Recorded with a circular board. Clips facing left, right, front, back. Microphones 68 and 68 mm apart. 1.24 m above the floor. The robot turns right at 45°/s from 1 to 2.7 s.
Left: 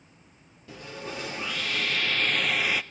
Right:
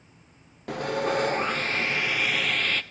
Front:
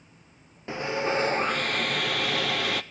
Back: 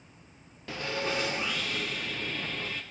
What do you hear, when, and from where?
0.7 s sawing: 65° right, 0.6 m; by 2.8 s 10° left, 0.6 m